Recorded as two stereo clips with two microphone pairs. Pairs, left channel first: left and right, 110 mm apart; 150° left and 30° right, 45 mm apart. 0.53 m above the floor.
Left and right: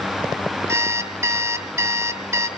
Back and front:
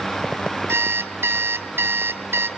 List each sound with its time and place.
0.7 s an alarm clock: 30° right, 1.6 m